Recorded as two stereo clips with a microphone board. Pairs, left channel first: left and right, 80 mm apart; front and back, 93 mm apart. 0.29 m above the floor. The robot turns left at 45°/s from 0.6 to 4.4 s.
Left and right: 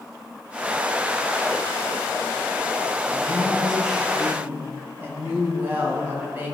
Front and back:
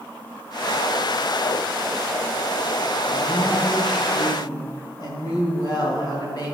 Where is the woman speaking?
35° left, 2.5 m; by 6.5 s 25° right, 2.5 m.